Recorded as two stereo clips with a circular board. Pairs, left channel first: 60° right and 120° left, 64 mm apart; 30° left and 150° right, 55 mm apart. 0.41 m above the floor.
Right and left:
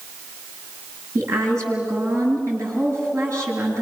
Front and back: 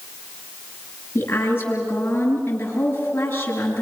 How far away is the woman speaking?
About 7.5 m.